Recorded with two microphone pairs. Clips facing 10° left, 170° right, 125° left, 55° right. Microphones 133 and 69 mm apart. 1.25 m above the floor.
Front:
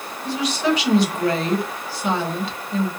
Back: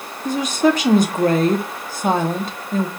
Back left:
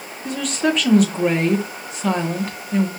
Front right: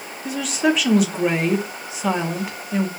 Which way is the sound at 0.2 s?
140° right.